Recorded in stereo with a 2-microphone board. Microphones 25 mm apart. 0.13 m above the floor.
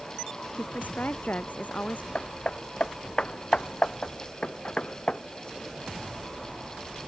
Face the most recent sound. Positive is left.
turn(degrees=40)  # may be behind; listen again after turning